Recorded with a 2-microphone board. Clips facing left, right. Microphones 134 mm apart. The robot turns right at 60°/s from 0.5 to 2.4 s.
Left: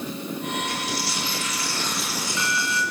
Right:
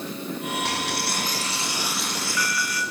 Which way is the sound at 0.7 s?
80° right.